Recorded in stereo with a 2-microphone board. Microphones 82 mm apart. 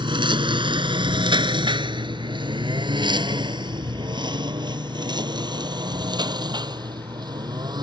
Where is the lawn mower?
80° right; by 7.8 s 60° right (ahead or behind).